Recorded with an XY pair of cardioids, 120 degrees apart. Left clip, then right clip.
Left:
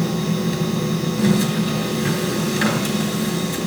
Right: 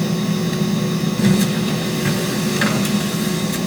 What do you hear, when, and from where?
0.0 s a machine running: 10° right, 3.5 m